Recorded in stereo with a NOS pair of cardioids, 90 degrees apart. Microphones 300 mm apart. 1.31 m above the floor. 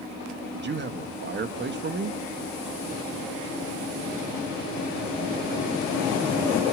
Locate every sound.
0.5 s a man speaking: 35° right, 1.9 m